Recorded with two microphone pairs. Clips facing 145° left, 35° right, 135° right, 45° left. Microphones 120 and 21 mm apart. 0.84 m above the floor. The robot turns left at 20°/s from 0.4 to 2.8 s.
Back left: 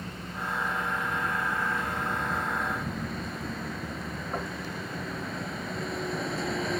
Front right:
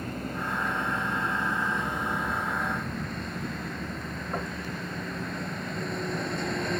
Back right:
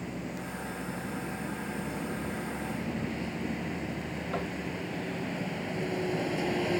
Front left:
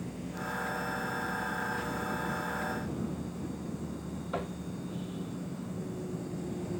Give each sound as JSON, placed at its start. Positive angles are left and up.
{"t": 0.0, "sound": "a vehicle", "azimuth_deg": -80}